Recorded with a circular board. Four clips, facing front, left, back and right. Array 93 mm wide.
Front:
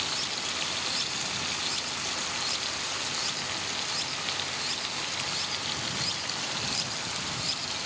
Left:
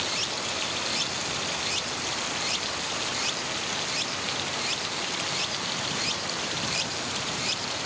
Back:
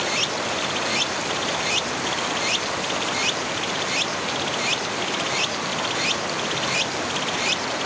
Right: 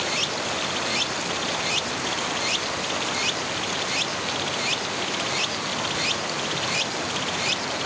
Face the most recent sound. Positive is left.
turn(degrees=-160)